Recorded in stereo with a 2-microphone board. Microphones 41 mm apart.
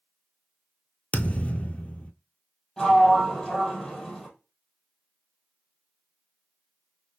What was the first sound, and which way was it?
A thud, 35° left (ahead or behind).